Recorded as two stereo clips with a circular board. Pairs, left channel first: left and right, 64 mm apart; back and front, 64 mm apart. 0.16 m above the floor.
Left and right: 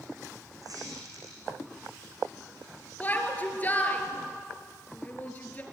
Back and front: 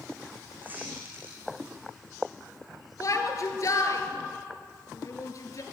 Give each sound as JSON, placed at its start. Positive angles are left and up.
{"t": 0.6, "sound": "a squeak", "azimuth_deg": -65, "distance_m": 6.0}
{"t": 3.0, "sound": "a shout", "azimuth_deg": 150, "distance_m": 3.0}